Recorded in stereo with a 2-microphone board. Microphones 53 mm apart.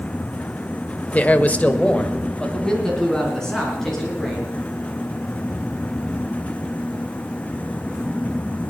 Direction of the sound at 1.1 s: 30° left (ahead or behind).